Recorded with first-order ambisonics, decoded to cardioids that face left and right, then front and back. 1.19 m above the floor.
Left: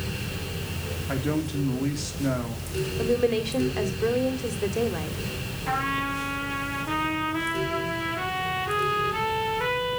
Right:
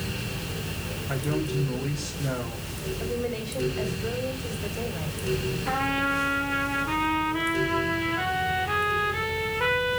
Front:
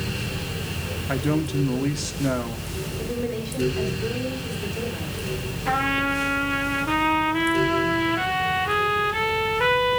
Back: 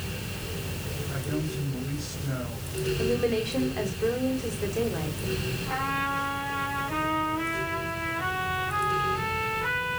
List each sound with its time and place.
1.1 s a man speaking: 15° left, 3 m
3.0 s a woman speaking: 100° left, 3.5 m
5.7 s a trumpet: 5° left, 4.5 m